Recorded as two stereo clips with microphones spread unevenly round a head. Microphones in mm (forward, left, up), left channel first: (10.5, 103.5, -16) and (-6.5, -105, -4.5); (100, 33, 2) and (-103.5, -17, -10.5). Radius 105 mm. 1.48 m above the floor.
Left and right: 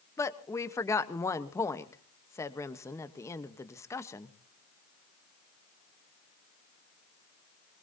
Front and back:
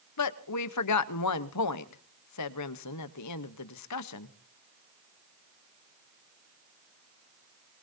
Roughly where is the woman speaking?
Ahead.